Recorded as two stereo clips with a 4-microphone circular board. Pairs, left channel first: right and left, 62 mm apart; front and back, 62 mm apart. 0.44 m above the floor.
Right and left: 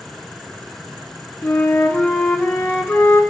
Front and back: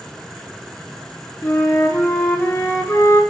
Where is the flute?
30° right, 5 m.